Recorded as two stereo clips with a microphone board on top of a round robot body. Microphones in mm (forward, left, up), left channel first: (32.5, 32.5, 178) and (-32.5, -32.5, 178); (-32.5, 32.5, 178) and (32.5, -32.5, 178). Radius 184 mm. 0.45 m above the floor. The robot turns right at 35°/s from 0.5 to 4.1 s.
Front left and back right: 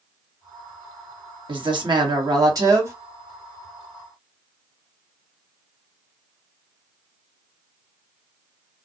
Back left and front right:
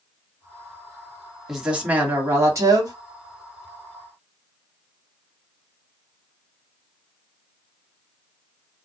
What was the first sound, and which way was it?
A woman speaking, 130° right.